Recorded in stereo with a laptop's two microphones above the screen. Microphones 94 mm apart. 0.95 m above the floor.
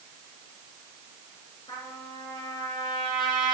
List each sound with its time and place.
1.7 s a trumpet: 55° left (ahead or behind), 2 m